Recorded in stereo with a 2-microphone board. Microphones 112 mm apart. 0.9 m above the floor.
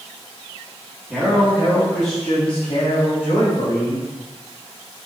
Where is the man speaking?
15° right (ahead or behind), 1.2 m; by 4.1 s 85° left, 2 m.